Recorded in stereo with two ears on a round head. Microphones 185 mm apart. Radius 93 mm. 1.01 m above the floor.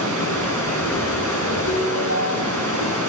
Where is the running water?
80° right, 7.5 m.